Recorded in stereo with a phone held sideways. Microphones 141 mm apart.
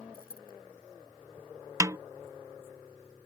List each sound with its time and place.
0.1 s a dropped coin: 80° left
1.8 s a snare drum: 20° right (ahead or behind)